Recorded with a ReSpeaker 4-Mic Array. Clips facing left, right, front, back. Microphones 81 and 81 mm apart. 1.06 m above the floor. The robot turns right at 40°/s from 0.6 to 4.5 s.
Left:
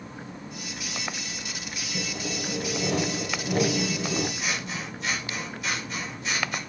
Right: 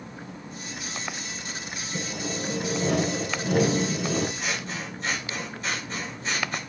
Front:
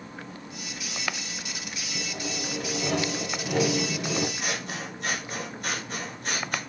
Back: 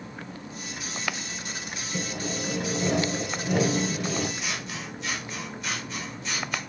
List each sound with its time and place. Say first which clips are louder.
1.9 s sawing: right 1 dB, back 3 dB; 160° right, 5 m; by 4.3 s 65° right, 5 m
4.4 s scissors: even, front 2 dB; 40° right, 4.5 m